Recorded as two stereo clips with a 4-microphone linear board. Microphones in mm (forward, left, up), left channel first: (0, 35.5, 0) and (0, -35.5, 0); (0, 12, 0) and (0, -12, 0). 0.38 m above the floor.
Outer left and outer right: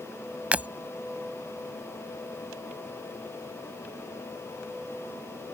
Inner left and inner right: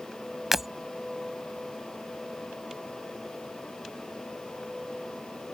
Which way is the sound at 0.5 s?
20° right (ahead or behind).